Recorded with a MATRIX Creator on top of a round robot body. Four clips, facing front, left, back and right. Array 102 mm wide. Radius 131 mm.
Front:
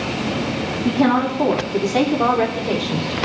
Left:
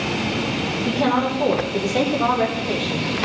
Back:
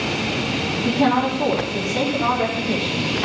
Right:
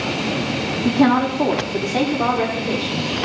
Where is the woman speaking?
75° right, 2 m; by 3.1 s 10° right, 4 m.